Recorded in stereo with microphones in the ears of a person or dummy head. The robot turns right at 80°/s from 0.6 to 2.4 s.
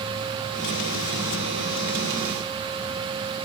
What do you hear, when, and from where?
Only background noise.